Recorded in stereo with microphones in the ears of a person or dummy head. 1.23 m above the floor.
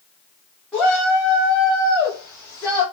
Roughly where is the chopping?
I don't hear chopping.